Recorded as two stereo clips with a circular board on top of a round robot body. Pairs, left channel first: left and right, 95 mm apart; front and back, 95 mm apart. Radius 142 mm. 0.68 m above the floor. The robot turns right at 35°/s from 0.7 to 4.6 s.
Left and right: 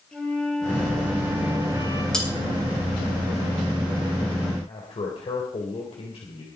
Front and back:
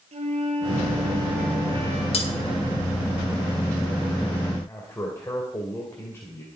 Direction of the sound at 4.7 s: 65° left.